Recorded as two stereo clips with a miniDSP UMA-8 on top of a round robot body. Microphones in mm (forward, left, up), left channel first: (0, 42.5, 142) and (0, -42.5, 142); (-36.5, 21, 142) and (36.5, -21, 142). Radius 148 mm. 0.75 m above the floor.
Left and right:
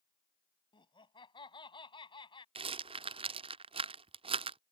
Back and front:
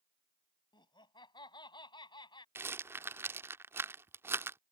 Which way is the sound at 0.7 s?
115° left.